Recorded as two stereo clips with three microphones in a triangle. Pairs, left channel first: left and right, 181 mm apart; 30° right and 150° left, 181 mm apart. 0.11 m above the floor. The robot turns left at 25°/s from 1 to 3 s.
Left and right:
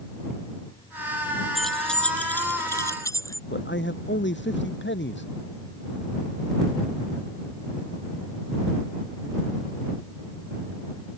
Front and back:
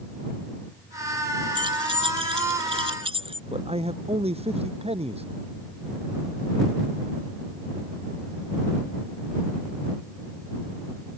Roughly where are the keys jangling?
Behind.